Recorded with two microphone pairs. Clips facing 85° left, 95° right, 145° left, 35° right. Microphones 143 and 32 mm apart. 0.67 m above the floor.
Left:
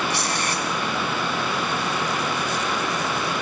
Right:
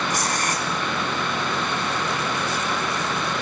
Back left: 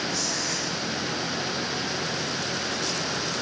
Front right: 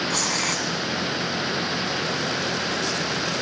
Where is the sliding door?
No sliding door in this recording.